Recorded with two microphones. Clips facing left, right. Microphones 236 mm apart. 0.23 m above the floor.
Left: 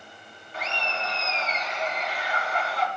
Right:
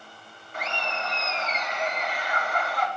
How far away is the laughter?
About 2.5 m.